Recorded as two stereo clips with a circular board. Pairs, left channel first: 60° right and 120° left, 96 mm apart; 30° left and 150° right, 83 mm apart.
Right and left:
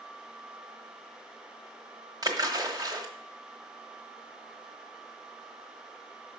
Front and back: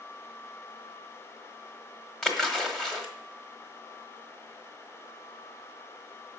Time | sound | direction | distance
2.2 | a splash | 110° left | 1.4 m